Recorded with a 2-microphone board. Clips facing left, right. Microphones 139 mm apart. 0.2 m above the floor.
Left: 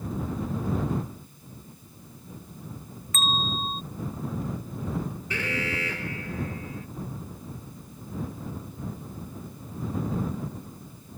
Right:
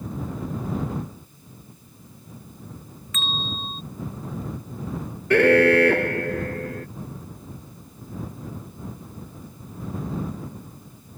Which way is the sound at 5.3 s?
65° right (ahead or behind).